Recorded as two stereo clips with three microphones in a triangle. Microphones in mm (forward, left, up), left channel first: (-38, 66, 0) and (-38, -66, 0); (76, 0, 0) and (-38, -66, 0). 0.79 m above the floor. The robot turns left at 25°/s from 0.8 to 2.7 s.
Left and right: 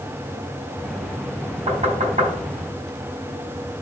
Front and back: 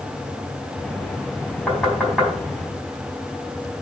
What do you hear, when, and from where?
1.7 s knocking: 55° right, 4 m; by 2.3 s 70° right, 4 m